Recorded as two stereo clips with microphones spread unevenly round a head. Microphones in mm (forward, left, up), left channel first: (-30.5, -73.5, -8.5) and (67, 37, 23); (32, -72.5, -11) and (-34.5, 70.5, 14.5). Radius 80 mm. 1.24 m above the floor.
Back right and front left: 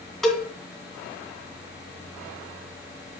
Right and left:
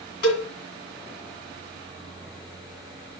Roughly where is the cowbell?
Ahead right.